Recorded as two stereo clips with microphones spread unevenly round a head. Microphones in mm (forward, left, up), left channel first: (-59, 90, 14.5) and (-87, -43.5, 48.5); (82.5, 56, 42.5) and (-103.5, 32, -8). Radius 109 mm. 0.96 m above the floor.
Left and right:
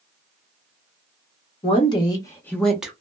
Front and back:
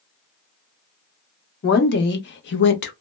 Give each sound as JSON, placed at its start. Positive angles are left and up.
{"t": 1.6, "sound": "a woman speaking", "azimuth_deg": 45, "distance_m": 1.0}